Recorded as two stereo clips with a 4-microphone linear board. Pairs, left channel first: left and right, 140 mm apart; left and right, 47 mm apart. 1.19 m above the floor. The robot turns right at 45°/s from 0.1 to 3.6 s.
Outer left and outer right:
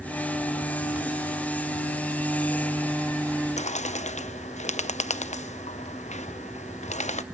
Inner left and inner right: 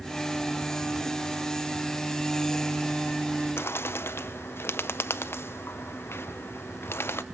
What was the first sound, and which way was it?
A bird, 55° left (ahead or behind).